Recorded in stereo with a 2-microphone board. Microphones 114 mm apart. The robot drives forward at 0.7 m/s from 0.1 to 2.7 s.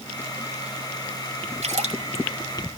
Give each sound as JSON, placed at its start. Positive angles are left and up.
{"t": 1.6, "sound": "a splash", "side_deg": -80, "distance_m": 2.5}